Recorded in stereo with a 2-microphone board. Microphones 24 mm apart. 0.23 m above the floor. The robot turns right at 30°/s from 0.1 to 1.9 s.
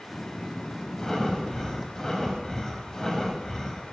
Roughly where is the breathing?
Centre.